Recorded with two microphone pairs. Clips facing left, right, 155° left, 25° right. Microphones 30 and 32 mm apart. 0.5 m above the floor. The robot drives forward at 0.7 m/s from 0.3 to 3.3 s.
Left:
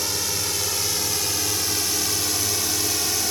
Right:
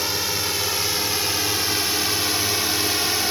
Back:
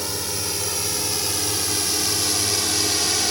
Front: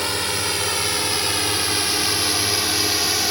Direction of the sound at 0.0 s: 30° right.